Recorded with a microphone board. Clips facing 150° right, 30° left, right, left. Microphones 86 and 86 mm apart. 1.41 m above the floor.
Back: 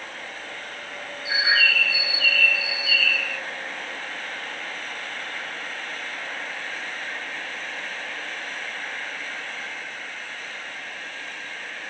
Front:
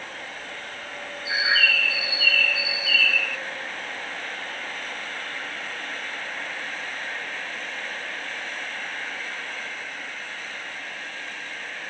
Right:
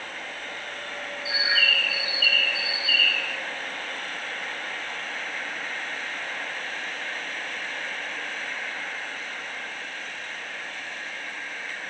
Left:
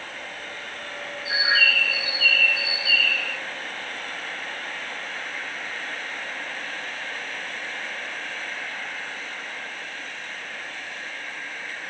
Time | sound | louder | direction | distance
1.2 | a bird | back 1 dB, left 3 dB | 120° left | 1.1 m